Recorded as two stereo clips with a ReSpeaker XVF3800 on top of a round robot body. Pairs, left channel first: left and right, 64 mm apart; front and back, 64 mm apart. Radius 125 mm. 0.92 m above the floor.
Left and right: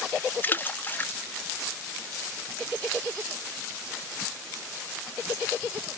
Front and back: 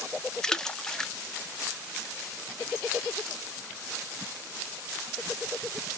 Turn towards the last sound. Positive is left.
turn(degrees=70)